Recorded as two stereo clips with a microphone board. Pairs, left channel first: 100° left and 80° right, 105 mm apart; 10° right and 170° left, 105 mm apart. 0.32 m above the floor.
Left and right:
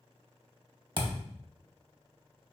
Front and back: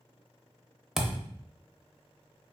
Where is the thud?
105° right, 0.5 m.